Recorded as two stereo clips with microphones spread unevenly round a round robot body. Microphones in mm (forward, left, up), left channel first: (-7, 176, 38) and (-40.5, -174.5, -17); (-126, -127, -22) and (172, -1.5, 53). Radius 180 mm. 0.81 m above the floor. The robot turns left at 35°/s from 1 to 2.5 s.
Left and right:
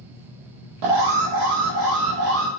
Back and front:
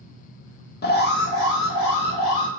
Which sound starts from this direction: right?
An alarm, at 0.8 s.